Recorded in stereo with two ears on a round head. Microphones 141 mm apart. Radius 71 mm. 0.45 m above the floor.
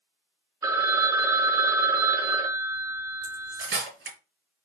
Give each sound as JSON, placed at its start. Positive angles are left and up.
{"t": 0.6, "sound": "a phone ringing", "side_deg": -20, "distance_m": 0.5}
{"t": 3.2, "sound": "cutlery clinking", "side_deg": -70, "distance_m": 2.0}